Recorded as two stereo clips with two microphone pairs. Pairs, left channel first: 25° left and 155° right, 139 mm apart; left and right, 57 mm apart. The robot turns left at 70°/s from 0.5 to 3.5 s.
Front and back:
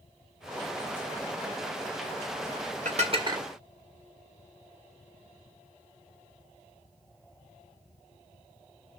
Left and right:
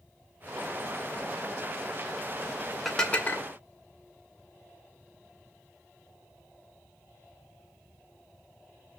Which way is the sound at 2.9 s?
Straight behind.